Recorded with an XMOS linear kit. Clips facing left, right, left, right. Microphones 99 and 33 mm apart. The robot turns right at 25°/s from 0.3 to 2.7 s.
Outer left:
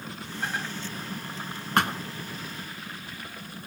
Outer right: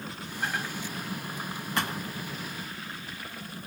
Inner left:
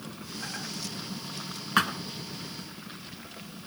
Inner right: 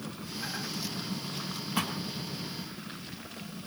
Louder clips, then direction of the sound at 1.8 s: Outer left 6 dB, inner left 8 dB; 65° left (ahead or behind).